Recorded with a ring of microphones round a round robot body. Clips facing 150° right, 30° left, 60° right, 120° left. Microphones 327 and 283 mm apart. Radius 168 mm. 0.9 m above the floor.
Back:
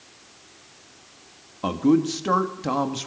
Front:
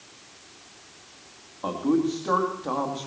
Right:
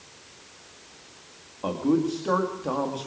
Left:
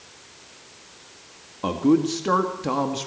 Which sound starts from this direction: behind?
A man speaking, at 1.6 s.